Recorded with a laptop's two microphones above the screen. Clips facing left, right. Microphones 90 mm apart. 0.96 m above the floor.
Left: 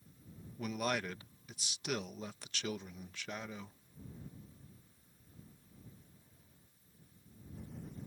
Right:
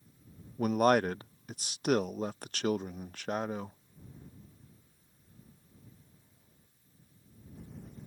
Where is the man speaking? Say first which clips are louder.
Right 12 dB; 50° right (ahead or behind).